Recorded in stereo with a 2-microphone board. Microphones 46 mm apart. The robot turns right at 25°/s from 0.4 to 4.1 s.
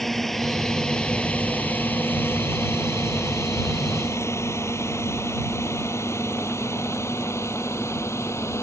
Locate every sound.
0.0 s a drone: 5° left (ahead or behind); by 8.6 s 80° left